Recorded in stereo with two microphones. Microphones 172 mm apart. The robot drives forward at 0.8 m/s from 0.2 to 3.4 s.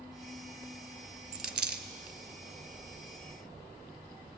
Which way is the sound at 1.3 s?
60° right (ahead or behind).